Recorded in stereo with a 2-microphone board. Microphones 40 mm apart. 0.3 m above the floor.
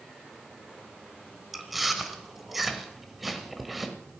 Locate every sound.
1.5 s chewing: 5° right (ahead or behind), 1.4 m